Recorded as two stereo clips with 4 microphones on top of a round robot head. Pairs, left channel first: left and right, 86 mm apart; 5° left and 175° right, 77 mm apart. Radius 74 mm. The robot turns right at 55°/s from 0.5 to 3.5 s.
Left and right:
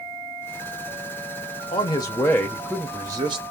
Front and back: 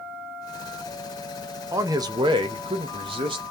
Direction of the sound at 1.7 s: 130° left.